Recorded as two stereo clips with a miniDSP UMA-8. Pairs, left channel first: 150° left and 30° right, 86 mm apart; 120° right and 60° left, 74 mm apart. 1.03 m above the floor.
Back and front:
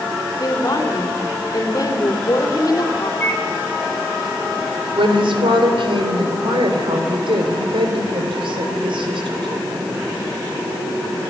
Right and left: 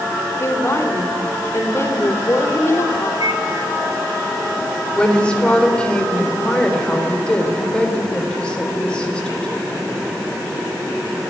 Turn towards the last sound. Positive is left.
turn(degrees=-45)